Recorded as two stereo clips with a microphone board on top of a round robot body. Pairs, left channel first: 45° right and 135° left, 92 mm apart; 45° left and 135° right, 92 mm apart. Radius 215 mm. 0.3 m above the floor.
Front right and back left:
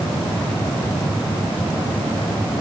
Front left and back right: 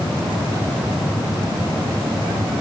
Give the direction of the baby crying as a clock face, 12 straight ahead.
No baby crying in this recording.